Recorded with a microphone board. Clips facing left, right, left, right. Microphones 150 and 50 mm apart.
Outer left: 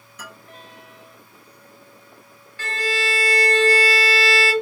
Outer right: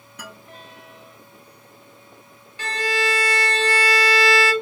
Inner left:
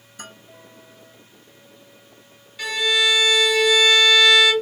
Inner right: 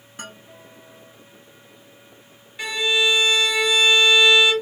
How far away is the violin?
About 0.9 m.